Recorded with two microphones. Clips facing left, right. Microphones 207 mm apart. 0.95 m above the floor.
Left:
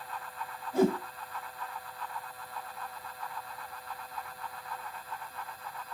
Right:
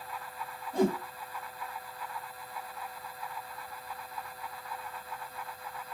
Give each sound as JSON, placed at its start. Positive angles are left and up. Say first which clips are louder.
{"t": 0.7, "sound": "a whoosh", "louder": "left 2 dB", "side_deg": 5, "distance_m": 1.0}